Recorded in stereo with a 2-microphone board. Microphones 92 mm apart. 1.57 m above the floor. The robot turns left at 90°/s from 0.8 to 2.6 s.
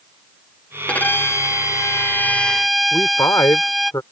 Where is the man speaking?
35° left (ahead or behind).